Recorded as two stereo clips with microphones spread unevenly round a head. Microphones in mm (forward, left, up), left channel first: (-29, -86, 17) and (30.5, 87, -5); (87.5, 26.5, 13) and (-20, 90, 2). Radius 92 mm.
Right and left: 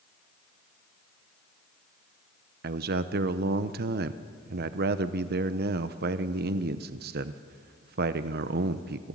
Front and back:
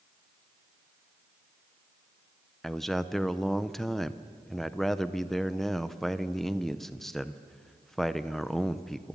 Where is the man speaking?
50° left, 0.6 m.